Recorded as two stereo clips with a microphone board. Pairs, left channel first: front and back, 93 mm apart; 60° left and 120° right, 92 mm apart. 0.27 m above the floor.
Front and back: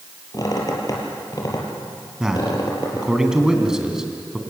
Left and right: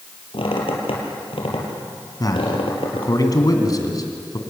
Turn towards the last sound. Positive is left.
turn(degrees=100)